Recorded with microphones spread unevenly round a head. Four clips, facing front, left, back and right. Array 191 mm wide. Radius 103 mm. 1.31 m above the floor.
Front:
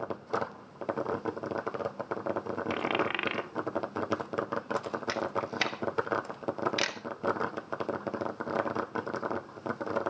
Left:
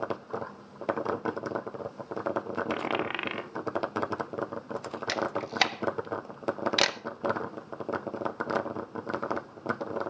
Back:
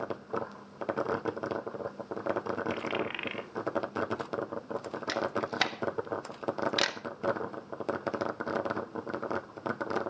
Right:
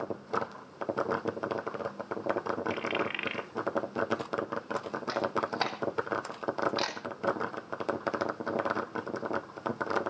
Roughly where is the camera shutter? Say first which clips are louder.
Even, back 2 dB; left.